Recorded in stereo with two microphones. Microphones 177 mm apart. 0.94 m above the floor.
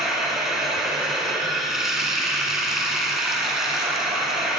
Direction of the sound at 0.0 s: 5° right (ahead or behind).